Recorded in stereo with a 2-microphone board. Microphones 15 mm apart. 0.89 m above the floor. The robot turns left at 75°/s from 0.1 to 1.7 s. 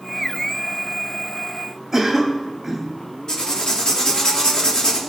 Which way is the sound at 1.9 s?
30° right (ahead or behind).